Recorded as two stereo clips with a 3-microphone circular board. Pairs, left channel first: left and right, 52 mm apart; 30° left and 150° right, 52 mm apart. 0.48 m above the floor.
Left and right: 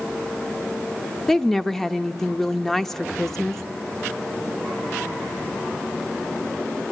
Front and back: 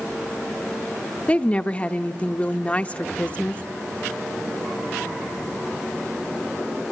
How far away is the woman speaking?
About 0.8 m.